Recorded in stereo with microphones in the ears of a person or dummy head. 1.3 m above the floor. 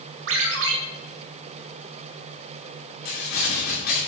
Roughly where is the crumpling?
Left.